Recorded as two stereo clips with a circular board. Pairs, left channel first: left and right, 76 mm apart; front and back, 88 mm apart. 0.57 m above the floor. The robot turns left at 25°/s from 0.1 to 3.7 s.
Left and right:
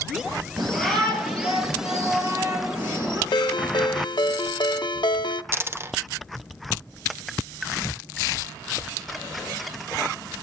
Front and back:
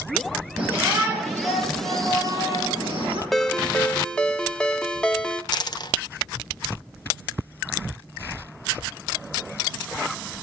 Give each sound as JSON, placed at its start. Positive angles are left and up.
{"t": 0.6, "sound": "a shout", "azimuth_deg": -100, "distance_m": 9.0}
{"t": 3.3, "sound": "a ringtone", "azimuth_deg": 90, "distance_m": 0.8}
{"t": 5.5, "sound": "a dropped coin", "azimuth_deg": -35, "distance_m": 0.8}